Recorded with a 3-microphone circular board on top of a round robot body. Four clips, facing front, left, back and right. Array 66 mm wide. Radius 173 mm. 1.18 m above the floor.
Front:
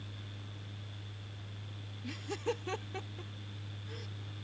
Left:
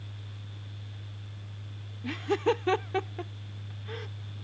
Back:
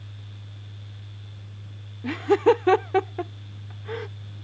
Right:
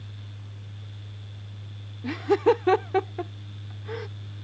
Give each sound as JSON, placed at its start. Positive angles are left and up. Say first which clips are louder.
{"t": 2.0, "sound": "laughter", "louder": "right 6 dB, back 19 dB", "azimuth_deg": -155}